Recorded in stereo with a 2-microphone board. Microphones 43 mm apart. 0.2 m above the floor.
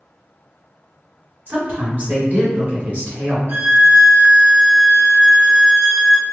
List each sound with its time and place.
1.5 s a woman speaking: 40° right (ahead or behind), 1.9 m
3.5 s a violin: 50° right (ahead or behind), 0.8 m